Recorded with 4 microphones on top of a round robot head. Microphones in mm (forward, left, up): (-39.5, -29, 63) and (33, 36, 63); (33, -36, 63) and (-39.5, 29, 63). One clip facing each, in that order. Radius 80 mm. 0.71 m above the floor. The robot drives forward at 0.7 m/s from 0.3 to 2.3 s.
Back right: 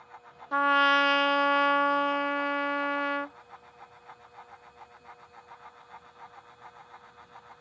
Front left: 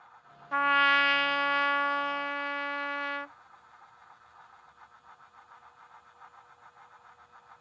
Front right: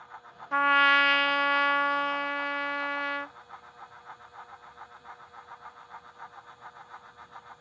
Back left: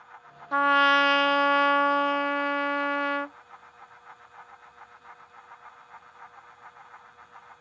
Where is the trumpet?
175° right; by 3.4 s straight behind.